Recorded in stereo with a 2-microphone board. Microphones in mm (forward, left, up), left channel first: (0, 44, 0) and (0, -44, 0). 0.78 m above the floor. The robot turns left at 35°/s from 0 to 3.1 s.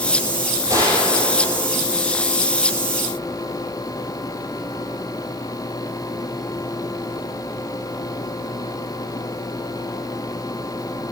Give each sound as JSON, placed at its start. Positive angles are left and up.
{"t": 0.7, "sound": "a gunshot", "azimuth_deg": -35, "distance_m": 6.0}